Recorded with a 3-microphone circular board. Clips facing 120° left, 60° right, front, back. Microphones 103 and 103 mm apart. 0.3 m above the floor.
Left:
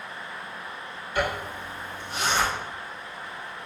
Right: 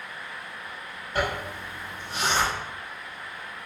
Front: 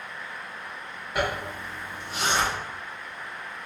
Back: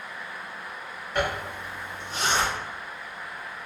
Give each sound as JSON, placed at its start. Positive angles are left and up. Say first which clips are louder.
{"t": 1.1, "sound": "a zipper", "louder": "even, even", "azimuth_deg": -80, "distance_m": 1.7}